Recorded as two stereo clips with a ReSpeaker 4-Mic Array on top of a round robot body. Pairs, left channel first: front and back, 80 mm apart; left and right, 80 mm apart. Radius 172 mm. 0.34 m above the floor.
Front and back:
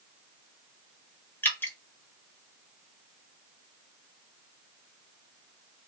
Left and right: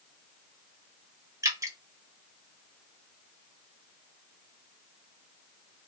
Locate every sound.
1.4 s dripping: 55° right, 1.3 m